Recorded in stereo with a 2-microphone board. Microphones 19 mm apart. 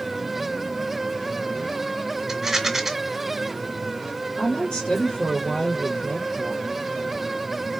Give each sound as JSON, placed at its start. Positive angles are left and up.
{"t": 2.3, "sound": "a rattle", "side_deg": -20, "distance_m": 1.5}
{"t": 4.4, "sound": "a woman speaking", "side_deg": 60, "distance_m": 3.5}